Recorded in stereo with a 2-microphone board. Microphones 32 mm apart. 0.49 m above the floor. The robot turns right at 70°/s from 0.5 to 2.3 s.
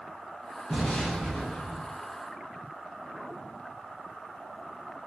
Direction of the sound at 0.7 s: 35° left.